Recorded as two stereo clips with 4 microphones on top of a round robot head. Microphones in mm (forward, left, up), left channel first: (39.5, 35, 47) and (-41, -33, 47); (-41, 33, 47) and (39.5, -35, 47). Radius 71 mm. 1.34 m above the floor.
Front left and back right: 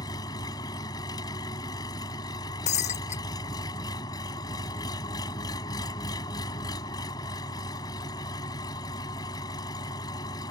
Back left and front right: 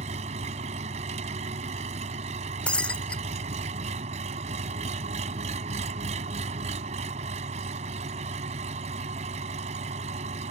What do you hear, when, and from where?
0.0 s an engine running: 15° right
2.7 s breaking glass: 60° left